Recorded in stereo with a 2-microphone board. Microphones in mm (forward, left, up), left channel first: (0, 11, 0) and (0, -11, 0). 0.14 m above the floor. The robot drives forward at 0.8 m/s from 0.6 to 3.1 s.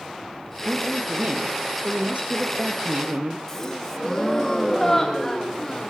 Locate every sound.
0.7 s a woman speaking: 40° right (ahead or behind), 3.5 m; by 3.4 s 60° right (ahead or behind), 2.5 m
3.5 s a gasp: 15° left (ahead or behind), 2 m